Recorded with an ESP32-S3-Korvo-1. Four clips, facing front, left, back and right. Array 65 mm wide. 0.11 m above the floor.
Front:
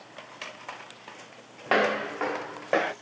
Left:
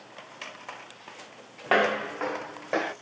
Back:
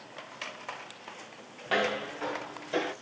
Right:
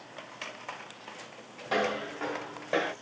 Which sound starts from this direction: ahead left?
Footsteps, at 1.7 s.